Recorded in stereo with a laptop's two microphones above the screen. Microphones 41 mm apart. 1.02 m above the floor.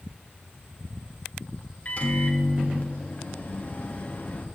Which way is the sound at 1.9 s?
40° left (ahead or behind).